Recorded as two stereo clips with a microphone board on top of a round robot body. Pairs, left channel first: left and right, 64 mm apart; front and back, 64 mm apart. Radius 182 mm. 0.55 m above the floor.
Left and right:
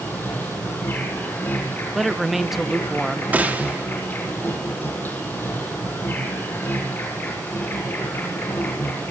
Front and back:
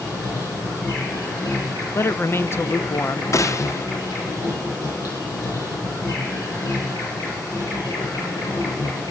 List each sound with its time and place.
0.0 s an insect: 30° left, 7 m
1.9 s a man speaking: 5° right, 1.2 m
3.3 s a gunshot: 30° right, 1.7 m